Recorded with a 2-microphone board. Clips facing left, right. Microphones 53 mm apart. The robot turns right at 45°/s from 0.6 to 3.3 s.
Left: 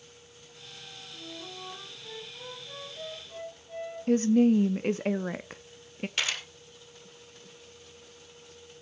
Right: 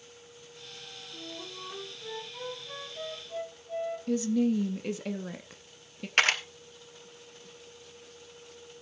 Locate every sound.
1.1 s a flute: 100° right, 6.5 m; by 4.0 s 5° right, 6.5 m
4.1 s a woman speaking: 45° left (ahead or behind), 0.6 m
6.2 s a camera shutter: 55° right (ahead or behind), 2.0 m